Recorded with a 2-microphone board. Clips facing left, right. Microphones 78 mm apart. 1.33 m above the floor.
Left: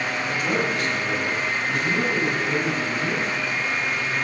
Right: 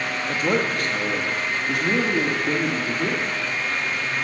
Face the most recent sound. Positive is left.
turn(degrees=-80)